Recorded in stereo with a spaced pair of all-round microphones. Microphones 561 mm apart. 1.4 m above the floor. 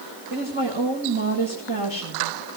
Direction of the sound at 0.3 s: 55° right (ahead or behind).